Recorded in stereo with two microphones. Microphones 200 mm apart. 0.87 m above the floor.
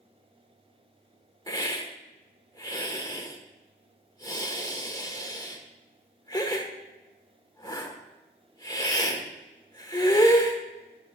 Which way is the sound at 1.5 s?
20° left (ahead or behind).